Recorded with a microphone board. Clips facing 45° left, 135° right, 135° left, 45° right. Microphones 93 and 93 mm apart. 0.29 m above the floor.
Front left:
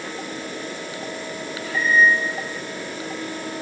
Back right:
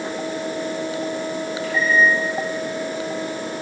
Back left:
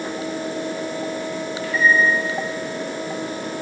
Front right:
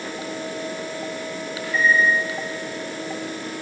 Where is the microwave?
120° right, 3 m.